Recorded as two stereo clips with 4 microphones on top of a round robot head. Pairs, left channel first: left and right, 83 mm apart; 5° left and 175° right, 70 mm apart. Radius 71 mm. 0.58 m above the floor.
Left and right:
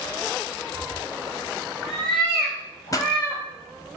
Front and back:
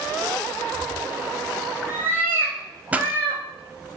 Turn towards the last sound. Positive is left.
turn(degrees=120)